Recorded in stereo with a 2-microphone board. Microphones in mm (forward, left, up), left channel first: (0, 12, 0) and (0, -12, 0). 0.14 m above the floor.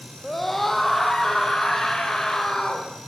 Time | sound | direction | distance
0.2 | a scream | 10° left (ahead or behind) | 5 m